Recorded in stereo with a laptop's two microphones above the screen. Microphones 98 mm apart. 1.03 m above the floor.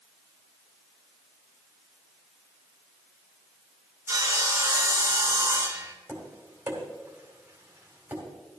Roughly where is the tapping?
Right.